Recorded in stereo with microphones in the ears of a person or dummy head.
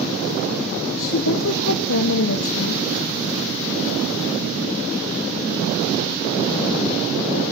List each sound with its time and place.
1.0 s a woman speaking: 75° left (ahead or behind), 1.2 m